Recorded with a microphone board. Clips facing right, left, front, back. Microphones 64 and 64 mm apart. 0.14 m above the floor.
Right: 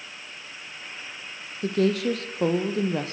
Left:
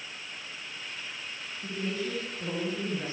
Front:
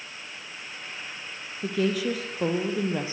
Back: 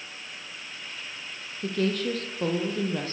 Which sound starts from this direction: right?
A woman speaking, at 1.6 s.